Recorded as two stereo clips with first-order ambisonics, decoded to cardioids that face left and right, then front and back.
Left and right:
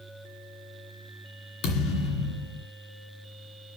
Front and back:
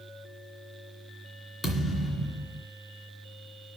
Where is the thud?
95° left, 2.5 m.